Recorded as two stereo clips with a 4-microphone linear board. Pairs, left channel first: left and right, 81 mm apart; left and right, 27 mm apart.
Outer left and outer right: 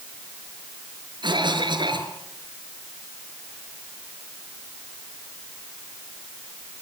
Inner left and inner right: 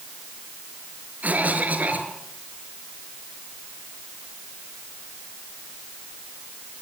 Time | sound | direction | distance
1.2 | a cough | 70° right (ahead or behind) | 6 m